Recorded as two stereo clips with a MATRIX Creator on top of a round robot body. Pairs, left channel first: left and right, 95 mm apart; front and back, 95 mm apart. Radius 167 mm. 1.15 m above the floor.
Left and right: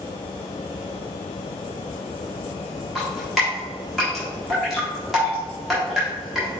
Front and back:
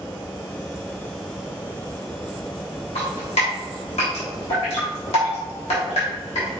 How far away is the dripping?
About 1.3 m.